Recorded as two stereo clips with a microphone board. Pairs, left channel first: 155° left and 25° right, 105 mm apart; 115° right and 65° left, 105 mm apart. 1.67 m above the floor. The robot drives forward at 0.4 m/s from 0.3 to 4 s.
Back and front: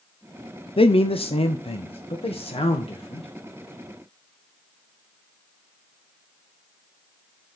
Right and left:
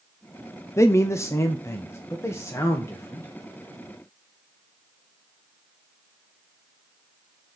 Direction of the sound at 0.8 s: 175° right.